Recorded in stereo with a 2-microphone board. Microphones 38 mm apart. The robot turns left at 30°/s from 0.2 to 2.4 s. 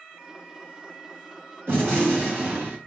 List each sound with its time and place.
1.7 s a gunshot: 90° right, 1.4 m; by 2.8 s 65° right (ahead or behind), 1.4 m